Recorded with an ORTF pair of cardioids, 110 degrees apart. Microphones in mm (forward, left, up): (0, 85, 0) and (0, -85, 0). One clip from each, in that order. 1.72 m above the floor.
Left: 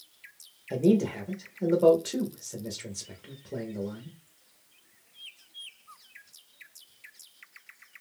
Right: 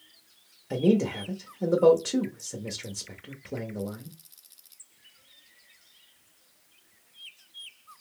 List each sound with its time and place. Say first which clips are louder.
0.7 s a man speaking: even; 15° right, 0.6 m